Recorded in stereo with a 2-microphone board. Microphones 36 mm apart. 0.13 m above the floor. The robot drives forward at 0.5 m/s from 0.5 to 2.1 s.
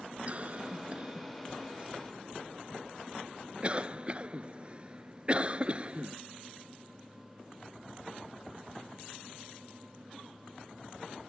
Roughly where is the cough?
Right.